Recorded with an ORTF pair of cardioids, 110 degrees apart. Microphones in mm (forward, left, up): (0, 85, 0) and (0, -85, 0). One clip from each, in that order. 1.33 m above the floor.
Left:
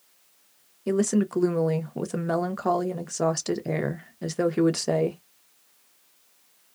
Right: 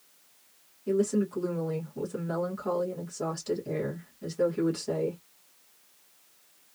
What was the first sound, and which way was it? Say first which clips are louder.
A woman speaking: left 2 dB; 65° left.